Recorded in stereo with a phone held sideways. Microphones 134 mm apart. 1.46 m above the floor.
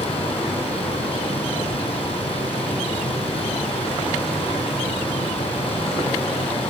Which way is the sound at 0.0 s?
45° left (ahead or behind).